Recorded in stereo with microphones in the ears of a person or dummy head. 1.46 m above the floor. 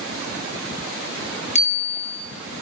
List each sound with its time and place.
1.6 s a bicycle bell: 35° left (ahead or behind), 6 m